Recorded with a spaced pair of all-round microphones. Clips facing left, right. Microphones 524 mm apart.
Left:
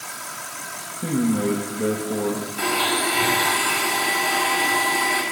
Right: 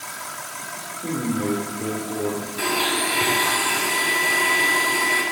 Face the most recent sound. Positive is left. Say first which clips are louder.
# even
turn(degrees=5)  # may be behind; listen again after turning